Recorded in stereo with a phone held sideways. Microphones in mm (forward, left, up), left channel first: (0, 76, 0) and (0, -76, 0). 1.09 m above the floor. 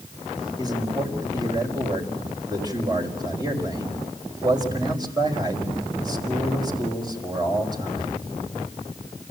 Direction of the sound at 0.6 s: 25° right (ahead or behind).